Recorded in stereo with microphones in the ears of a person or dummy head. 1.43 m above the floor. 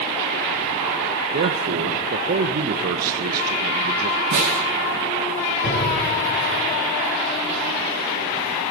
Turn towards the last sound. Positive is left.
turn(degrees=65)  # may be behind; listen again after turning